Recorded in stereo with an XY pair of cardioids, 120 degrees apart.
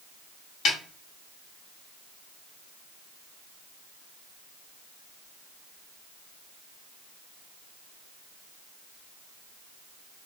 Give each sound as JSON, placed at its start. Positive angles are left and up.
{"t": 0.7, "sound": "a snare drum", "azimuth_deg": 65, "distance_m": 1.2}